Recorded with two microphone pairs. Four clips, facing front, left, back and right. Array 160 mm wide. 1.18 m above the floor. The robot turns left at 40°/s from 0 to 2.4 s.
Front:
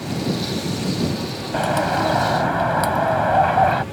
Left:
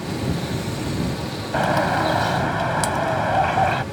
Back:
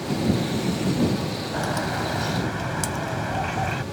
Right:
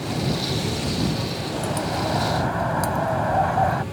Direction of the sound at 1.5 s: 40° left.